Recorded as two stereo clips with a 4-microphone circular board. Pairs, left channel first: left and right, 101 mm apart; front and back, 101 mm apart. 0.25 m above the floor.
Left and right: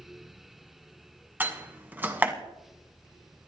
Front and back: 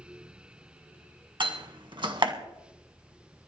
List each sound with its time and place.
1.4 s a door slam: 160° right, 1.6 m